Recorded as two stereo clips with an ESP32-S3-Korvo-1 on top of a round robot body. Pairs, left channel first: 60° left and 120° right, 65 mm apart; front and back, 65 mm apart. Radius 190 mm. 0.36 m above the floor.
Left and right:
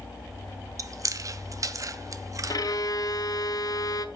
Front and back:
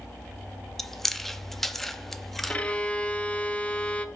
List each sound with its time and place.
0.8 s chewing: 85° right, 0.7 m
2.5 s a violin: 70° left, 1.1 m